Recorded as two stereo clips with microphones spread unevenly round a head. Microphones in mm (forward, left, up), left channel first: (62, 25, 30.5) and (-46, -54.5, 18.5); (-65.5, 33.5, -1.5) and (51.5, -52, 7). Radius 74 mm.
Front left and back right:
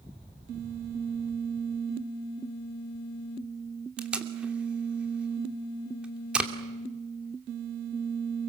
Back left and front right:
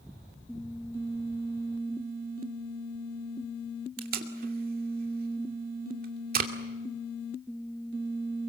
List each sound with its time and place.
4.0 s tape being pulled: 60° right, 2.5 m